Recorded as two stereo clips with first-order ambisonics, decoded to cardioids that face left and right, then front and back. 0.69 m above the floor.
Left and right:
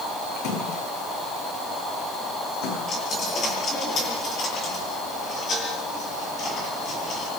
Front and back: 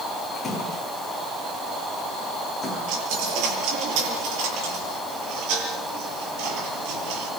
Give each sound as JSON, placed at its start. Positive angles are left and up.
{"t": 0.3, "sound": "a splash", "azimuth_deg": 75, "distance_m": 9.5}
{"t": 2.9, "sound": "a dropped coin", "azimuth_deg": 155, "distance_m": 8.0}